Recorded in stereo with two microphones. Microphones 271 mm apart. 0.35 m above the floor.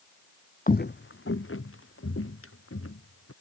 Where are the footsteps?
30° left (ahead or behind); by 3.3 s 55° left (ahead or behind).